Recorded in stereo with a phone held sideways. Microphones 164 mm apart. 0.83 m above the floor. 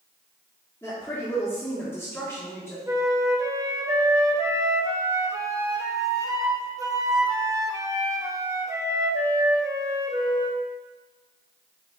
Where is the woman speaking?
15° left (ahead or behind), 1.6 m.